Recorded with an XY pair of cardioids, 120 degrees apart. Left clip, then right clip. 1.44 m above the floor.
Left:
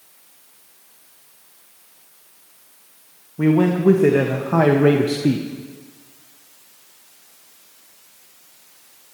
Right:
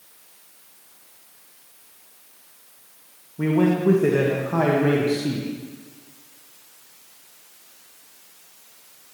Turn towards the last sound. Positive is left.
turn(degrees=60)